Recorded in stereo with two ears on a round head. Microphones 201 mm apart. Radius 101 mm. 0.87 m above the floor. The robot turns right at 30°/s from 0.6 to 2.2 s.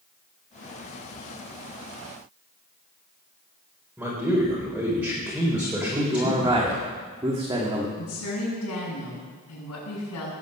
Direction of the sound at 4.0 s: 5° right (ahead or behind).